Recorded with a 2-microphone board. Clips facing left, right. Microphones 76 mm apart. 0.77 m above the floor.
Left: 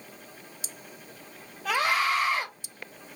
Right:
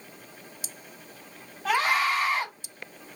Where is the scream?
40° right (ahead or behind), 2.5 m.